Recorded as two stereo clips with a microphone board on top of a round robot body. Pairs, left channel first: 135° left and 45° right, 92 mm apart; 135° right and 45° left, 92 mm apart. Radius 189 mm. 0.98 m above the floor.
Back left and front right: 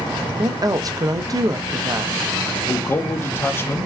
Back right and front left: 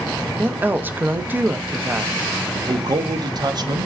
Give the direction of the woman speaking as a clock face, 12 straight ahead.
1 o'clock.